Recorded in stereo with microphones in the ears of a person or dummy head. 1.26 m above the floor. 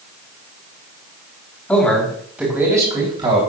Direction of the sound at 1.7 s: 5° left (ahead or behind).